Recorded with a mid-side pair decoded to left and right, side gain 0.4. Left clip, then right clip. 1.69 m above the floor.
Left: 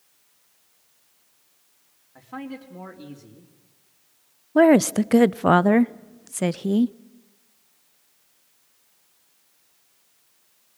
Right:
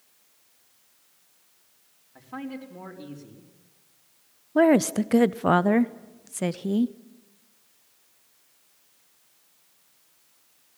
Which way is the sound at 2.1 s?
10° left.